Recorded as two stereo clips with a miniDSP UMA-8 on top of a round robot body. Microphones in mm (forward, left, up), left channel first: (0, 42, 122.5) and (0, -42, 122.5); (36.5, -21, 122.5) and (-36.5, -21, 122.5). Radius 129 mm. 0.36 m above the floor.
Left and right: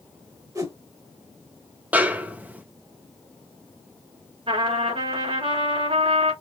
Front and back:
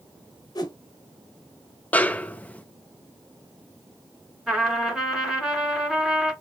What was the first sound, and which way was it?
A whoosh, 35° right.